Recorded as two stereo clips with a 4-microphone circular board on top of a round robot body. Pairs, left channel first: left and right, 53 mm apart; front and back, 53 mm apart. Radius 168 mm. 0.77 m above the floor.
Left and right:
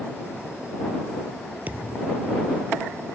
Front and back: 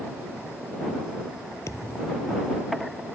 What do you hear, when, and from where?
1.7 s a thud: 25° right